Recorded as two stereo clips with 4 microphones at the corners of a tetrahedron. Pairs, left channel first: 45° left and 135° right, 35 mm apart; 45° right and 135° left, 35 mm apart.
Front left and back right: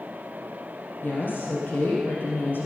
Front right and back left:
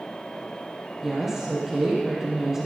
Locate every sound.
1.0 s a woman speaking: 55° left, 2.5 m